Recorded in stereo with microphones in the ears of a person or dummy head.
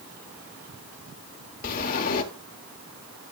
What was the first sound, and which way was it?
A sliding door, 45° left (ahead or behind).